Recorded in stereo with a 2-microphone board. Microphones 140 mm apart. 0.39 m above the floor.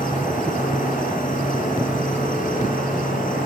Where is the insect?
65° left (ahead or behind), 9 m.